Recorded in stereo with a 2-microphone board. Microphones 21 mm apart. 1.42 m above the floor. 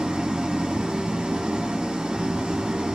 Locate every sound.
0.0 s an engine running: 60° right (ahead or behind), 1.6 m